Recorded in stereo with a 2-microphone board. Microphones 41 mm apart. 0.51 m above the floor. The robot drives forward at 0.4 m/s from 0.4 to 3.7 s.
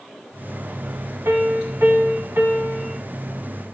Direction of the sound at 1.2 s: 75° right (ahead or behind).